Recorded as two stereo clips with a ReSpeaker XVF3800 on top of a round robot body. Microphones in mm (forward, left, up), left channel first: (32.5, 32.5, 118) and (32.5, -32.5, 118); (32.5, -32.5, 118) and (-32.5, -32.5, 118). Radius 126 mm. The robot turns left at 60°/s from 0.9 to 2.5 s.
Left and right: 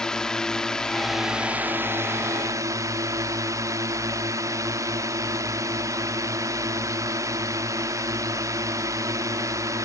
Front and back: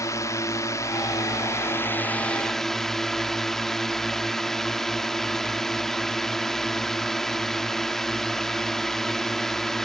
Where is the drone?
15° left; by 9.9 s 85° right.